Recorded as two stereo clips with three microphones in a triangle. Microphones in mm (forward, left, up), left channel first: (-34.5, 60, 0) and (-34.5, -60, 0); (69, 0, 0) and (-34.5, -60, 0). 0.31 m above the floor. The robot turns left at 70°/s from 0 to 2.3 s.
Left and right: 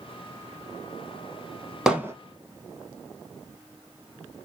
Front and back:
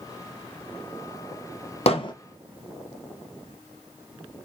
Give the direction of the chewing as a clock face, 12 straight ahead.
I don't hear chewing.